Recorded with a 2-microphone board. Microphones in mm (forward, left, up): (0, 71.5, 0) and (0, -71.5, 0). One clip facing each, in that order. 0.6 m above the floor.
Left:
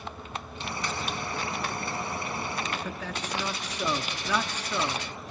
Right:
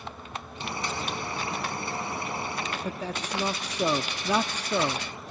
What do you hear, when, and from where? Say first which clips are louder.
0.6 s boiling: right 1 dB; 25° right (ahead or behind), 3.5 m
2.8 s a man speaking: right 2 dB; 30° right (ahead or behind), 0.6 m